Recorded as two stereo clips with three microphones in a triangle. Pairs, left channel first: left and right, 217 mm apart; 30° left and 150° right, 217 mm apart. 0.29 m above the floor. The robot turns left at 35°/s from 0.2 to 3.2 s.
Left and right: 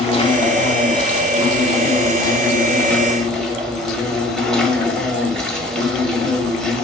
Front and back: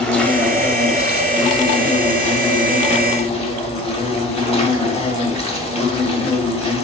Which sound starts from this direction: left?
An insect, at 0.0 s.